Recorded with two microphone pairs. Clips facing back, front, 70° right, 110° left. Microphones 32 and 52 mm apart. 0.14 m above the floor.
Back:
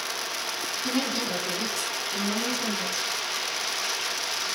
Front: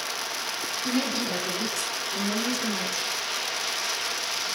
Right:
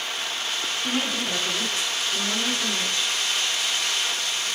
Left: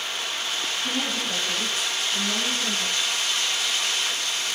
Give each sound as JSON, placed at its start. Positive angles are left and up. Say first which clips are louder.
{"t": 0.8, "sound": "a woman speaking", "louder": "front 1 dB, right 3 dB", "azimuth_deg": -110, "distance_m": 1.4}